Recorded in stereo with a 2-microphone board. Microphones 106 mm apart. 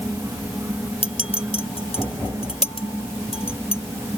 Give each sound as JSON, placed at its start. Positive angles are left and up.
{"t": 1.0, "sound": "a clink", "side_deg": 60}